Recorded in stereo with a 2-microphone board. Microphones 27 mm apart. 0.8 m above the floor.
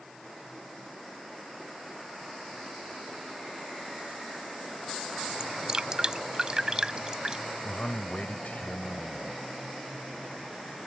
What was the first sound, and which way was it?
Dripping, 25° right (ahead or behind).